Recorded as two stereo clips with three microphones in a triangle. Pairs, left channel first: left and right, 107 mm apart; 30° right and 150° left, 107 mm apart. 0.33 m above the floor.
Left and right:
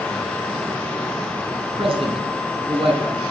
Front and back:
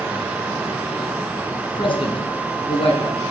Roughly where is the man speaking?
Ahead right.